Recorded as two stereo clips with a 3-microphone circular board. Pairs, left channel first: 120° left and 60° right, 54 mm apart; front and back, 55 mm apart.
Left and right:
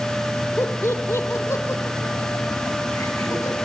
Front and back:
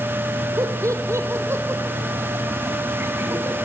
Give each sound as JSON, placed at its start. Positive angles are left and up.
{"t": 0.6, "sound": "laughter", "azimuth_deg": 160, "distance_m": 3.0}